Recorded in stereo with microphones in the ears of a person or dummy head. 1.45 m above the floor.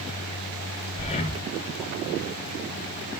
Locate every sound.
1.0 s breathing: 35° left (ahead or behind), 0.8 m